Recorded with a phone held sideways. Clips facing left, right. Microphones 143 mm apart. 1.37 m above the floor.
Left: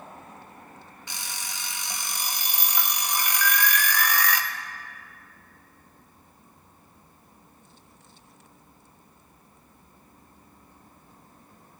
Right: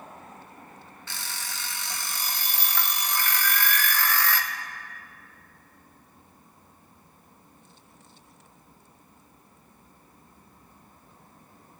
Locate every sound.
1.1 s an alarm clock: 15° left (ahead or behind), 0.6 m
3.4 s an alarm: 30° right (ahead or behind), 0.9 m